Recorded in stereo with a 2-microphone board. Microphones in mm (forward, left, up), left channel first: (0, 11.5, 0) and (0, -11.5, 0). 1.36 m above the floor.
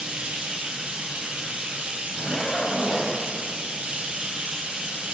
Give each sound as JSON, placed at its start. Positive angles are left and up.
{"t": 0.0, "sound": "running water", "side_deg": -65, "distance_m": 9.0}
{"t": 2.1, "sound": "a zipper", "side_deg": 50, "distance_m": 8.0}